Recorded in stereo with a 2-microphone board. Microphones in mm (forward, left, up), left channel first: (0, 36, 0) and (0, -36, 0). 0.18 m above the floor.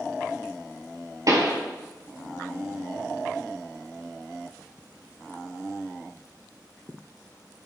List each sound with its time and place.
1.3 s a pop: 50° right (ahead or behind), 2 m